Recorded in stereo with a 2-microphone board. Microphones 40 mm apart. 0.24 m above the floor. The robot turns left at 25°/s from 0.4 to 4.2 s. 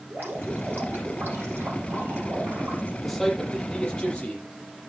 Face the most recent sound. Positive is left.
turn(degrees=25)  # may be behind; listen again after turning